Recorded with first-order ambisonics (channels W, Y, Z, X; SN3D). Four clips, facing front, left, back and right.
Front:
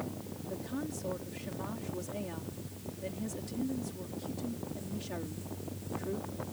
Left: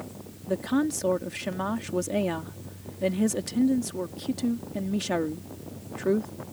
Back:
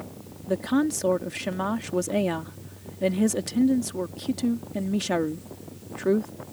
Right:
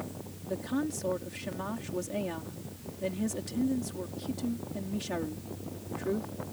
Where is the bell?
No bell in this recording.